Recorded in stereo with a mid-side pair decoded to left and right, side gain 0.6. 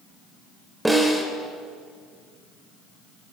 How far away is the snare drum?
About 4 m.